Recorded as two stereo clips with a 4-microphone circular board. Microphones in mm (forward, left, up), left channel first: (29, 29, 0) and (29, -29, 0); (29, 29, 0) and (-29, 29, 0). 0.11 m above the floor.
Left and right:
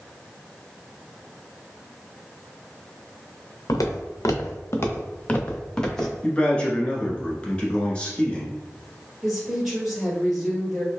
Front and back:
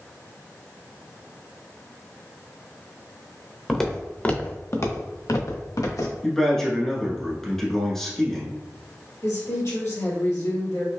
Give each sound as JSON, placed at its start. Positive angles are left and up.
{"t": 3.7, "sound": "footsteps", "azimuth_deg": 85, "distance_m": 1.1}
{"t": 6.2, "sound": "a man speaking", "azimuth_deg": 70, "distance_m": 1.1}
{"t": 9.2, "sound": "a woman speaking", "azimuth_deg": 0, "distance_m": 2.0}